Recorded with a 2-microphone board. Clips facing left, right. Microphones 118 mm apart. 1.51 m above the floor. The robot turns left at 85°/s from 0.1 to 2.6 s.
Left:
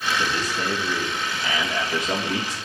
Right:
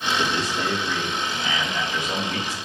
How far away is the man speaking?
About 2.5 m.